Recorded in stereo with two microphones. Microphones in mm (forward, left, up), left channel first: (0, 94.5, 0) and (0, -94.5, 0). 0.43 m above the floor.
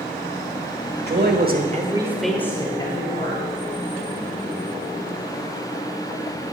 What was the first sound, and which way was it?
A man speaking, 60° right (ahead or behind).